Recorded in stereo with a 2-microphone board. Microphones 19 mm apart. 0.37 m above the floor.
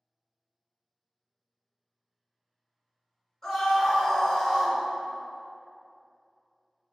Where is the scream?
25° left (ahead or behind), 1.4 m.